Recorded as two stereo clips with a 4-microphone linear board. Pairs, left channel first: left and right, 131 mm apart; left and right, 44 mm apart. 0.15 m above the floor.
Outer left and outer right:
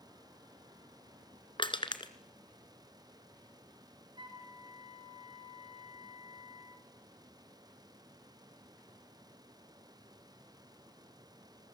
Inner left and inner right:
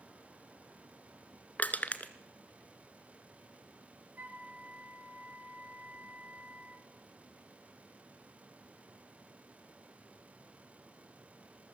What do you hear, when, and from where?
1.6 s crushing: 40° left (ahead or behind), 1.7 m
4.2 s a flute: 35° right (ahead or behind), 3 m